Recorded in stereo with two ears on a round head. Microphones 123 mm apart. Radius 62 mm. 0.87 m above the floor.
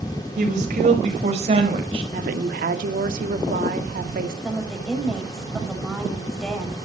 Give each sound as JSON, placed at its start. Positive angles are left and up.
{"t": 0.4, "sound": "a woman speaking", "side_deg": -55, "distance_m": 4.0}
{"t": 2.1, "sound": "a woman speaking", "side_deg": -70, "distance_m": 1.9}
{"t": 4.4, "sound": "a woman speaking", "side_deg": 0, "distance_m": 5.0}